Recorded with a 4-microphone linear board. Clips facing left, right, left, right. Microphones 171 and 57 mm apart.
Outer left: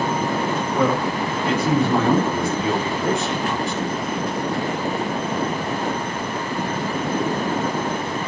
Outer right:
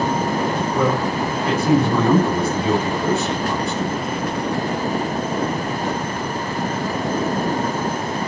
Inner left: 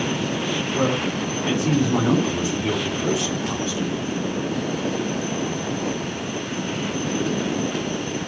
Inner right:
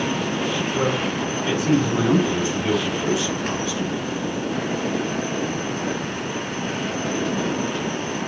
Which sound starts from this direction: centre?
A man speaking, at 0.7 s.